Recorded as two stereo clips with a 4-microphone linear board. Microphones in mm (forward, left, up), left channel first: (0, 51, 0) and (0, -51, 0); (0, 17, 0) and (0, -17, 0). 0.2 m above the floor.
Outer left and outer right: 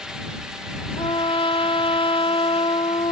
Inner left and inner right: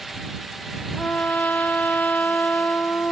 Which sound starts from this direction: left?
A trumpet, at 1.0 s.